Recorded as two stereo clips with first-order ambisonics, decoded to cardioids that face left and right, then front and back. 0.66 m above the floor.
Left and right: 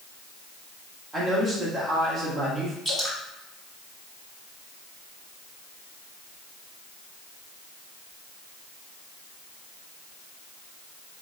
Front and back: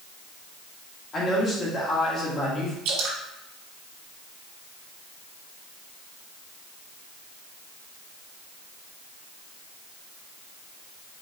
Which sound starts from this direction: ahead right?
A man speaking, at 1.1 s.